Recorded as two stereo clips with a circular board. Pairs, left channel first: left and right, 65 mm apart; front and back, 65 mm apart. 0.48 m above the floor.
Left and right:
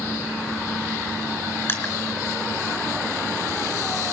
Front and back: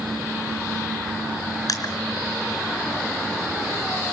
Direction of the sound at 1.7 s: 35° left.